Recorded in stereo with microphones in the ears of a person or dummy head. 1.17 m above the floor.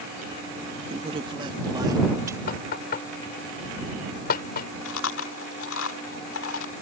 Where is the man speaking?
35° right (ahead or behind); by 2.4 s 15° right (ahead or behind).